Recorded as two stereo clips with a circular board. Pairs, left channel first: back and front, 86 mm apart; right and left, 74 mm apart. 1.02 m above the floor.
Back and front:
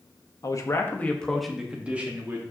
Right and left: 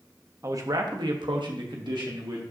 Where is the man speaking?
135° left, 1.2 m; by 2.4 s 65° left, 1.9 m.